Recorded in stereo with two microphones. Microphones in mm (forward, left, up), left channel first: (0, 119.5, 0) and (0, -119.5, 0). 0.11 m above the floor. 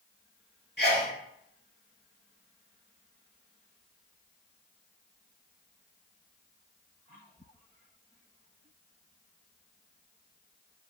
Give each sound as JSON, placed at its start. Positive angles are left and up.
{"t": 0.8, "sound": "a sneeze", "side_deg": 45, "distance_m": 1.8}